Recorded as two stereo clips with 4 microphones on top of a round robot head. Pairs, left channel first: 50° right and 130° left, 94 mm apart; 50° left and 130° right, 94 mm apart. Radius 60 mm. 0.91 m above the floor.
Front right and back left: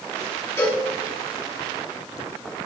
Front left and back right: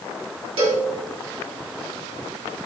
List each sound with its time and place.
0.6 s a cowbell: 110° right, 3.5 m